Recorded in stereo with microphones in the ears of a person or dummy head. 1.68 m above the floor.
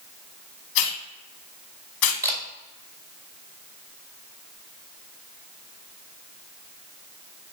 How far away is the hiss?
About 1.2 m.